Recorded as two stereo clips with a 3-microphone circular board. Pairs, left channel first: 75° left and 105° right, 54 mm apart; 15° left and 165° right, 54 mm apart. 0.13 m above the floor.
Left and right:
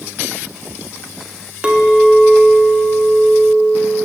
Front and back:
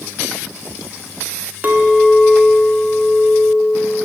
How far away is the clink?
About 0.7 m.